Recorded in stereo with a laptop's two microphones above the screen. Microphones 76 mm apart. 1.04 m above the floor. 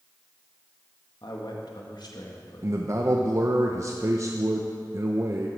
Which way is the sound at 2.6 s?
40° right (ahead or behind).